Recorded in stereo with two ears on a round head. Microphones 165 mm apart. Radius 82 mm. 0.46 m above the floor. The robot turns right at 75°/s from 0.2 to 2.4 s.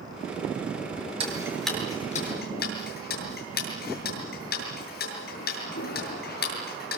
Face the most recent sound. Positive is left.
turn(degrees=55)  # may be behind; listen again after turning